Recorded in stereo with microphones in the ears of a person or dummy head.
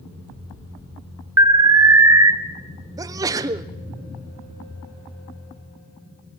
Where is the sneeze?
15° right (ahead or behind), 0.6 m.